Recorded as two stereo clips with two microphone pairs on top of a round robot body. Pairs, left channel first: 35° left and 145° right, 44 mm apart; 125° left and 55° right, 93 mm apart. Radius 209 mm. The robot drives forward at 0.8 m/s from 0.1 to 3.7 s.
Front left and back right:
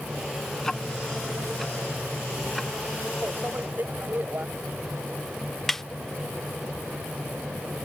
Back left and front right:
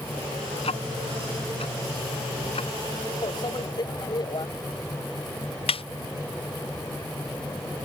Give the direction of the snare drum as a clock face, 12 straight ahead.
8 o'clock.